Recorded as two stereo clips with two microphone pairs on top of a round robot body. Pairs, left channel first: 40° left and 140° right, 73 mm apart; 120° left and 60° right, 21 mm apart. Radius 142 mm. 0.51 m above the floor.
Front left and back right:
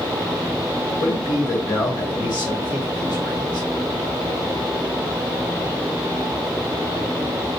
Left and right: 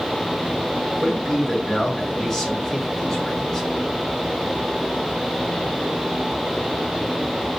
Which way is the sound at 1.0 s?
35° left.